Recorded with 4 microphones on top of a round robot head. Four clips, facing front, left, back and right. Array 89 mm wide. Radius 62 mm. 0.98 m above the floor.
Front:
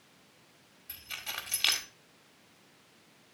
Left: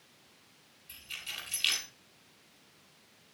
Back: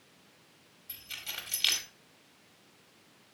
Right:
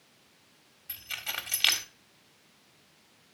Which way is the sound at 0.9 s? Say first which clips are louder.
Right 7 dB, front 3 dB; 55° right.